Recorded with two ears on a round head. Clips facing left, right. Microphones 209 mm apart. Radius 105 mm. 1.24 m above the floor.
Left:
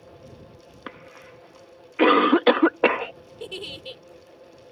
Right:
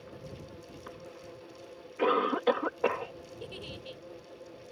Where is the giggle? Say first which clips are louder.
Left 9 dB; 65° left (ahead or behind).